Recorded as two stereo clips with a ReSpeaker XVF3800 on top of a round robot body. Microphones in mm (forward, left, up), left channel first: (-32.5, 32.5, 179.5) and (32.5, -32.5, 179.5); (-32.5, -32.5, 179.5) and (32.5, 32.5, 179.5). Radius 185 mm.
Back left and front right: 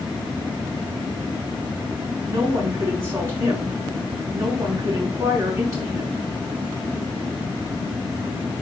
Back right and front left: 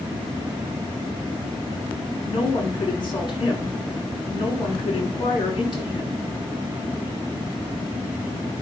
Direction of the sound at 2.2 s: 100° right.